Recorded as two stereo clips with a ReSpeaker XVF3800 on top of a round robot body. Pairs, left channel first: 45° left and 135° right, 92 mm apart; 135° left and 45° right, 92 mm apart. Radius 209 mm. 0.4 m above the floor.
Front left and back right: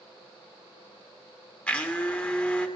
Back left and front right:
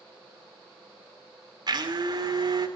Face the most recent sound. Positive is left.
turn(degrees=-30)